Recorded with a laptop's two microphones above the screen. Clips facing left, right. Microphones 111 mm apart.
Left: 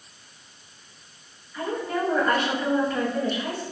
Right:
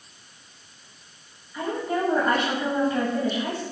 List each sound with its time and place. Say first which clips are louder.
1.5 s a woman speaking: right 1 dB; 15° right (ahead or behind), 1.2 m